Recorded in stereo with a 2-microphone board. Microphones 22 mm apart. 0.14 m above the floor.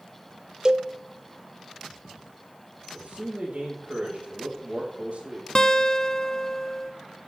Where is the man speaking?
65° right (ahead or behind), 5 m.